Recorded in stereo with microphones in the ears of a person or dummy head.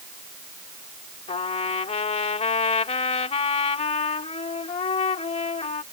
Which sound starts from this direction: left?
A trumpet, at 1.3 s.